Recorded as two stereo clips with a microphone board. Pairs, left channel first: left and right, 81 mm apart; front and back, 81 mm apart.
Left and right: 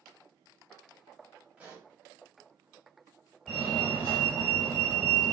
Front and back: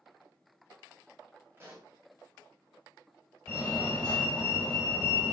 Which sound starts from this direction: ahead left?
A fire alarm, at 3.5 s.